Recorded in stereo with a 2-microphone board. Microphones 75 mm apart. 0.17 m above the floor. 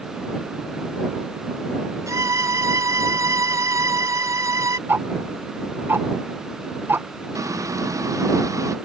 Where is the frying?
50° right (ahead or behind).